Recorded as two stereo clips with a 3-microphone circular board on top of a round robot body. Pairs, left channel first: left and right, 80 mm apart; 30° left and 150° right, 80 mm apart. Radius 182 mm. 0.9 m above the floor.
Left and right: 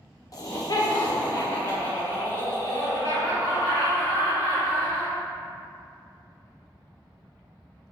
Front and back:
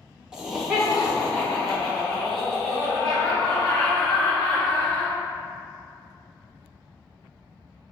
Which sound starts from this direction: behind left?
Laughter, at 0.3 s.